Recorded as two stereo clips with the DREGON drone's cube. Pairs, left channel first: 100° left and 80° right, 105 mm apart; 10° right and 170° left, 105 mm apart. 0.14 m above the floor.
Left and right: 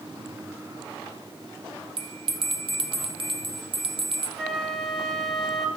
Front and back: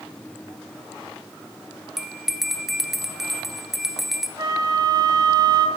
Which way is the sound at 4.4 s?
170° right.